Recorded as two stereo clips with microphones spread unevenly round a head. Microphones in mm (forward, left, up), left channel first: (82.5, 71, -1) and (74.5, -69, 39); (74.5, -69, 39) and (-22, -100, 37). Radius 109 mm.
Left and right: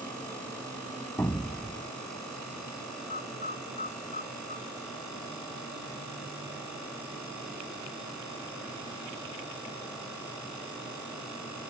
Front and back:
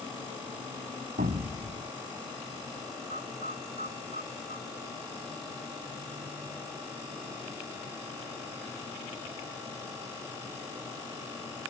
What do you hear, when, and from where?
1.2 s an explosion: 170° left
3.1 s a bird: 150° left